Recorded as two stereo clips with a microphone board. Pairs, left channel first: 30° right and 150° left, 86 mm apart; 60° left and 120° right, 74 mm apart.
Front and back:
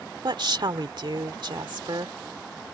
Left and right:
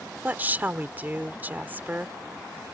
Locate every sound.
0.2 s a woman speaking: 175° left